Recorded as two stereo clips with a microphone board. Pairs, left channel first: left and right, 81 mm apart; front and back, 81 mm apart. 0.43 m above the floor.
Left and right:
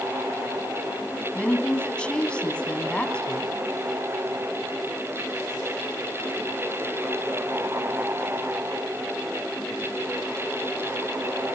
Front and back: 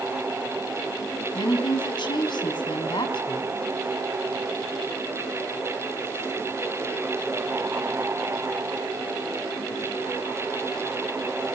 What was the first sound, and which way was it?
A woman speaking, 15° left.